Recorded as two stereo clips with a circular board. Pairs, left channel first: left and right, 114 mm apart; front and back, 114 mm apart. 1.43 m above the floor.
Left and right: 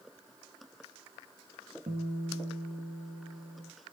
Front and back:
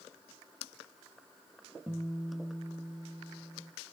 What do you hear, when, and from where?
1.9 s a guitar: 105° right, 2 m